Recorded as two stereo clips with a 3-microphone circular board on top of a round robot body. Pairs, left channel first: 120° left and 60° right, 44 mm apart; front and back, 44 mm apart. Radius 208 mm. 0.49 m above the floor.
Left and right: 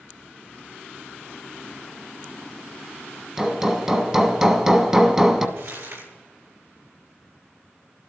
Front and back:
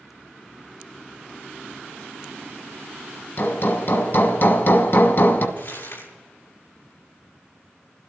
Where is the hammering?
15° left, 1.5 m.